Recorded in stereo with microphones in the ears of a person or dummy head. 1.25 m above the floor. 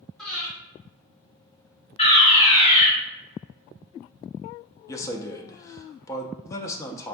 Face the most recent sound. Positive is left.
turn(degrees=20)  # may be behind; listen again after turning